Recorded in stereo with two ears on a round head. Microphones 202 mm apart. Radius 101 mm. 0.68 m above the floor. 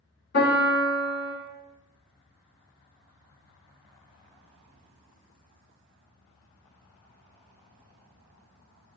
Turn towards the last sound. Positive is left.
turn(degrees=45)  # may be behind; listen again after turning